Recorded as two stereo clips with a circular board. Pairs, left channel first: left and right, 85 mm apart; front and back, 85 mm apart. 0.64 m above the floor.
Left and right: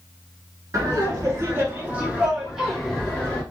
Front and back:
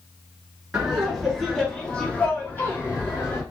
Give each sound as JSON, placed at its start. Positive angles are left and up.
{"t": 0.7, "sound": "laughter", "azimuth_deg": -100, "distance_m": 1.2}